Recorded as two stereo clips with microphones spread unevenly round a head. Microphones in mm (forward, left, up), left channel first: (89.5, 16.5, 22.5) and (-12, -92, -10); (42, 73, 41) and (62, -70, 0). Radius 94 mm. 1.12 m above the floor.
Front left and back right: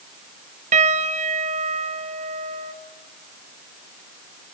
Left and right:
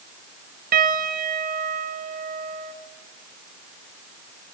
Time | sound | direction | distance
0.7 | a piano | 95° right | 1.7 m